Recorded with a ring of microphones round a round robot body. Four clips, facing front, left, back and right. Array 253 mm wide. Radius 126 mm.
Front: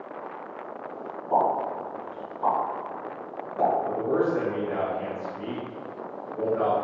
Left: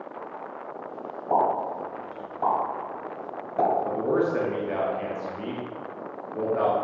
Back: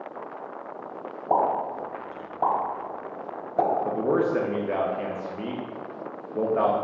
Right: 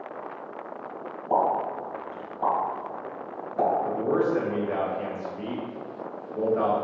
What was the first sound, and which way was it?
A pop, 160° left.